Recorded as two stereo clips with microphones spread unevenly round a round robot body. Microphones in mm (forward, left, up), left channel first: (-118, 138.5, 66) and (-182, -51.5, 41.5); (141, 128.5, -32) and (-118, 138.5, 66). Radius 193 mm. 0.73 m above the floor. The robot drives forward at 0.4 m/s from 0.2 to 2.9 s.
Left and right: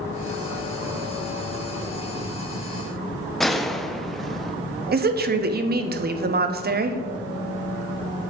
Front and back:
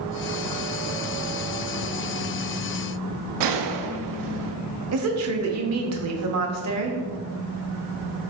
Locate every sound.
3.4 s a gunshot: 165° left, 0.7 m
4.9 s a woman speaking: 130° right, 0.6 m